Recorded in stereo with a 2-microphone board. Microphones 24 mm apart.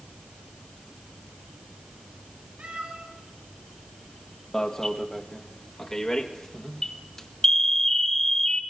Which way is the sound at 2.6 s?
65° right (ahead or behind).